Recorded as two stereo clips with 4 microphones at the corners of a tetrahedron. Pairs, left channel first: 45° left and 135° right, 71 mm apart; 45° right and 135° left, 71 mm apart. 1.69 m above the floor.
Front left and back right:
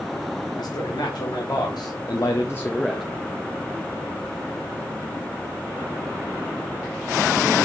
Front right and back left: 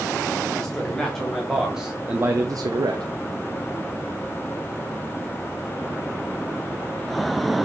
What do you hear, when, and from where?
0.6 s a man speaking: 35° left, 2.5 m; by 3.1 s 140° left, 0.9 m